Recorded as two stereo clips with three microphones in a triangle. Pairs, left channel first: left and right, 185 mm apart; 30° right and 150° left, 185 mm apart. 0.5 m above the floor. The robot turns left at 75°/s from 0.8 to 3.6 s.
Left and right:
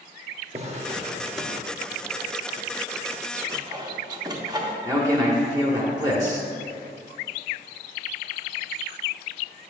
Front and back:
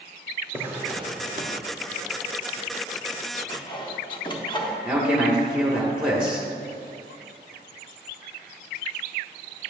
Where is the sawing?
45° right, 0.7 m; by 4.8 s 50° right, 0.7 m.